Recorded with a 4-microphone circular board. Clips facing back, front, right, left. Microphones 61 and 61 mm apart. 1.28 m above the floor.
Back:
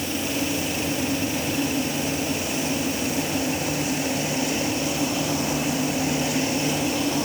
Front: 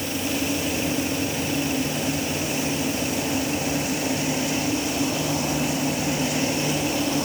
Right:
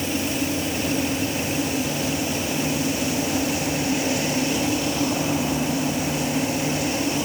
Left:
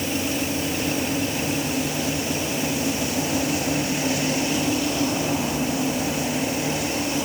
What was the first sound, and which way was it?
Only background noise.